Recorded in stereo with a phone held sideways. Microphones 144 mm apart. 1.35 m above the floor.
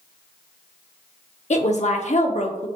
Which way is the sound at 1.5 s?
55° left (ahead or behind).